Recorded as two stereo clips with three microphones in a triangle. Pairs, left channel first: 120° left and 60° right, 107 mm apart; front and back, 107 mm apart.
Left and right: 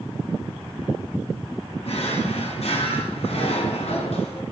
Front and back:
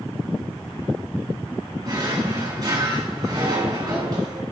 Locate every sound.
1.8 s a drawer: 125° left, 1.8 m